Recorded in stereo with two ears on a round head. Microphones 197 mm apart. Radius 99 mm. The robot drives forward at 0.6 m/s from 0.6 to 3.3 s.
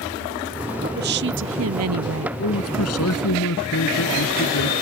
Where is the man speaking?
75° left (ahead or behind).